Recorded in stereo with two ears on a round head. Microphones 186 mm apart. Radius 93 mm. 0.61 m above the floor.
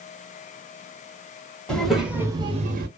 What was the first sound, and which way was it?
A child speaking, 5° left (ahead or behind).